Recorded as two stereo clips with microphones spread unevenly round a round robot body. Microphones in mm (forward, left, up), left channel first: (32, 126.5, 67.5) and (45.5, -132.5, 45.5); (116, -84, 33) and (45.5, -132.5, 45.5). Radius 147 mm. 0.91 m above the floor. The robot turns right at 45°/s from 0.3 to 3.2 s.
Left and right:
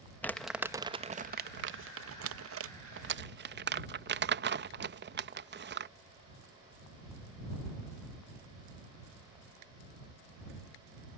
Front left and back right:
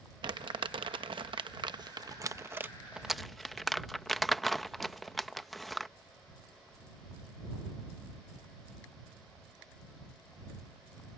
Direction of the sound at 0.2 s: Straight behind.